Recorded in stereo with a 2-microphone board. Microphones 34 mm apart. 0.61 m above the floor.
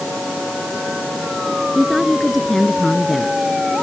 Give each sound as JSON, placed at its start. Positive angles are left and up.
{"t": 1.8, "sound": "a woman speaking", "side_deg": 0}